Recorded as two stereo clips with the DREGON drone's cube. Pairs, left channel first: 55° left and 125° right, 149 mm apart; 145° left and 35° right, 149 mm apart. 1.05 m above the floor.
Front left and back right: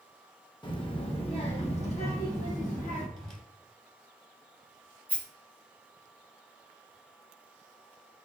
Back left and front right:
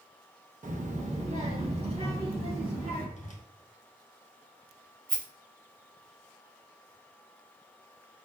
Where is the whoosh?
145° left, 0.9 m.